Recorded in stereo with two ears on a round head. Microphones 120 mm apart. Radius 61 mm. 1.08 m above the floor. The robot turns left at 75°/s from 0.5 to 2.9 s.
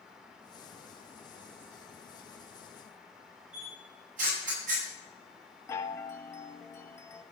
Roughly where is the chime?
Left.